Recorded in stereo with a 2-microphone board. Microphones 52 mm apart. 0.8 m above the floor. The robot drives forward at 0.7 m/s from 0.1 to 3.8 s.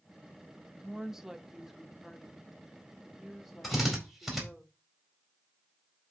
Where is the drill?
5° right (ahead or behind), 4 m.